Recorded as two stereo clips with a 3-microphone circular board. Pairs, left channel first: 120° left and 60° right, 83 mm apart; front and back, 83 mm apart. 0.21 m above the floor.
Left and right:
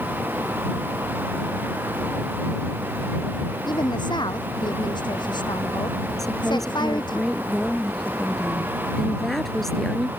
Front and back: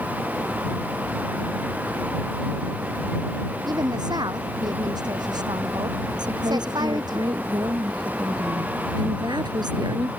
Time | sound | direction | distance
3.7 | a woman speaking | 145° left | ?
6.2 | a woman speaking | 155° right | ?